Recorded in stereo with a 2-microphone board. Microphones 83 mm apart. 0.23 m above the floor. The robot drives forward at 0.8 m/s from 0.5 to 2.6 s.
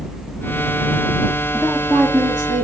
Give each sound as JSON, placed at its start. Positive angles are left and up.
{"t": 1.5, "sound": "a woman speaking", "side_deg": -5, "distance_m": 5.0}